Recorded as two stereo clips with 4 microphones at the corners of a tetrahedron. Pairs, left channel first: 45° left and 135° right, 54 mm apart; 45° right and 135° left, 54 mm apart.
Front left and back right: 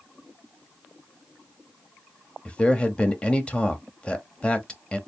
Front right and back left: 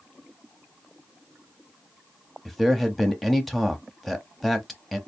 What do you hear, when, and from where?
2.5 s a man speaking: 40° left, 0.9 m